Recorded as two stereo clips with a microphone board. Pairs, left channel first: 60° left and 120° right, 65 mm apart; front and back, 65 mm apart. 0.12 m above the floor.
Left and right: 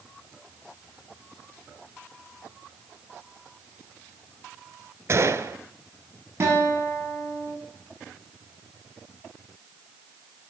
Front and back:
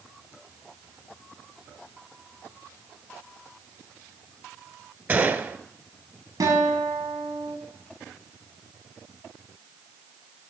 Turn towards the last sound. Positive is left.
turn(degrees=-170)